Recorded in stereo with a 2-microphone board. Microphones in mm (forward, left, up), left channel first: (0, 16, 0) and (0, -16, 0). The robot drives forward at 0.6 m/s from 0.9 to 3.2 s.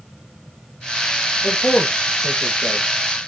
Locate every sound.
1.4 s a man speaking: 45° left (ahead or behind), 2.5 m; by 2.9 s 35° left (ahead or behind), 3 m